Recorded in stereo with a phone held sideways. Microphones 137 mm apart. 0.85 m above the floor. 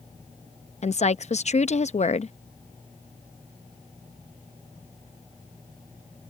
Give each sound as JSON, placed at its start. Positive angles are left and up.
{"t": 0.8, "sound": "a woman speaking", "side_deg": 55}